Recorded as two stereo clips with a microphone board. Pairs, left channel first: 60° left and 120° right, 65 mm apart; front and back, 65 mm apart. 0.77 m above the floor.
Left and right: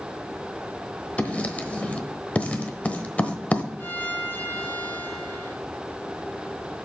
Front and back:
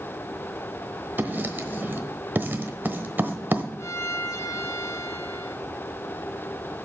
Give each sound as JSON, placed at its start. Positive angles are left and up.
{"t": 1.2, "sound": "writing", "azimuth_deg": 125, "distance_m": 1.0}
{"t": 3.8, "sound": "a violin", "azimuth_deg": 15, "distance_m": 1.2}